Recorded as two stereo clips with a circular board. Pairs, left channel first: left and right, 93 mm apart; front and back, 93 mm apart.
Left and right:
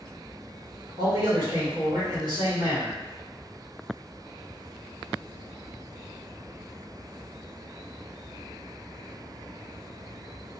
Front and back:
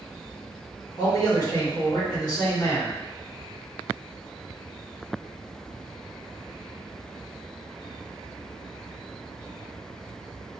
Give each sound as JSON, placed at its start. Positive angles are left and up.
{"t": 1.0, "sound": "a man speaking", "azimuth_deg": -45, "distance_m": 1.9}